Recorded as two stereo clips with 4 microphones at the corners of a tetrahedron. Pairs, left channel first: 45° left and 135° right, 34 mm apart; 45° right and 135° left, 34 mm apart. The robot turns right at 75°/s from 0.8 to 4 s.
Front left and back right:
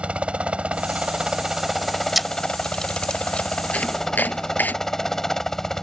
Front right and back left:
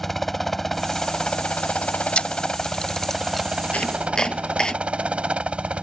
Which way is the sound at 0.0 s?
125° right.